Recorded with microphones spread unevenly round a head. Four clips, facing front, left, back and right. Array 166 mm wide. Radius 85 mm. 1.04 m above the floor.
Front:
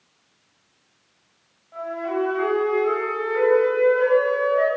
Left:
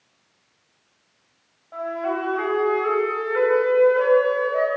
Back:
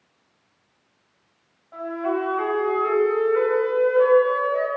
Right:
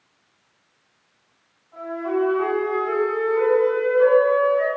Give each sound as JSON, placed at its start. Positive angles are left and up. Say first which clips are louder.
{"t": 1.7, "sound": "a flute", "louder": "right 1 dB, back 1 dB", "azimuth_deg": 90, "distance_m": 6.5}